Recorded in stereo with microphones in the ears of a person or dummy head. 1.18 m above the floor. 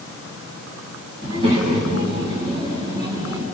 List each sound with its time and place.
1.2 s a child speaking: 30° right (ahead or behind), 5.5 m; by 3.5 s 20° right (ahead or behind), 7 m